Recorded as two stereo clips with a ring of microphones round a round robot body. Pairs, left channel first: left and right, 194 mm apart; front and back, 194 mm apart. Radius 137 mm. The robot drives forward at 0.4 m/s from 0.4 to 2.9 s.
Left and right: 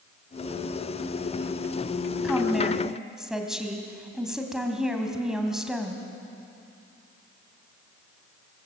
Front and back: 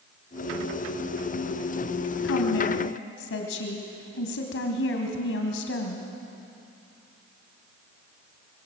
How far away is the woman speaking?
About 3 m.